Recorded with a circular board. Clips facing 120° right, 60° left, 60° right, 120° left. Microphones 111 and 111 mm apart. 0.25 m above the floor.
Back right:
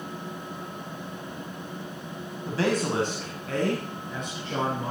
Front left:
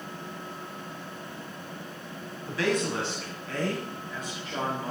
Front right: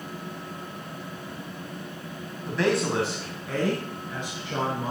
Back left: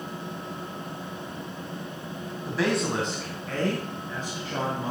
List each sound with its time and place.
2.5 s a man speaking: 160° right, 1.5 m; by 4.9 s 125° right, 4 m